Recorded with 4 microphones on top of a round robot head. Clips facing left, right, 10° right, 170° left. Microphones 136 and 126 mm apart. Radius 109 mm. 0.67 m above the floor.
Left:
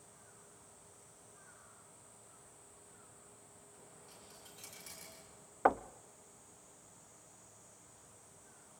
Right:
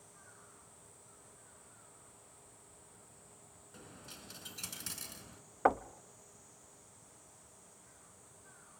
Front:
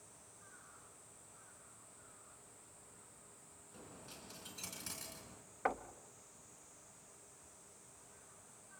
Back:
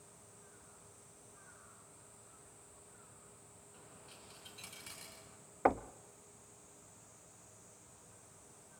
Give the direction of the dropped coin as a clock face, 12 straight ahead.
2 o'clock.